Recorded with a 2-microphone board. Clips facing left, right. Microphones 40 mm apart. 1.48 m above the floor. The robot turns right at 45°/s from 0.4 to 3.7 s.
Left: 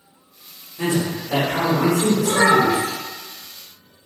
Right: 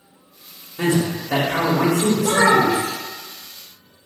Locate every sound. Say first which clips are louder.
0.8 s a man speaking: right 2 dB; 125° right, 1.1 m; by 2.8 s 35° right, 1.1 m
2.2 s a child speaking: right 1 dB; 85° right, 0.6 m; by 2.9 s 50° right, 0.6 m